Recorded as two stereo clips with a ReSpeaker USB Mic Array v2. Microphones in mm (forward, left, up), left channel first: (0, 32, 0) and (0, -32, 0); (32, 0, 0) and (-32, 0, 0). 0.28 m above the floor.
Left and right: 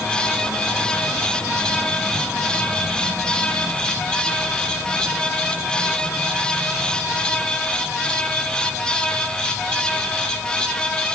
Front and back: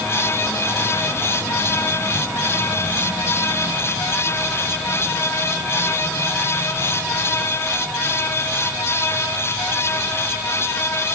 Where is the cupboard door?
I don't hear a cupboard door.